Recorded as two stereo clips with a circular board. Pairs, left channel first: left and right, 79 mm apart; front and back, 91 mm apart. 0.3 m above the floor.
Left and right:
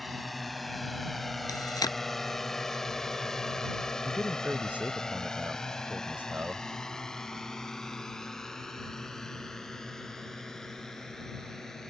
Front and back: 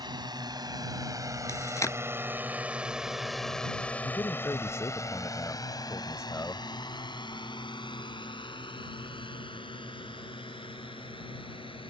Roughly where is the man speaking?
Ahead right.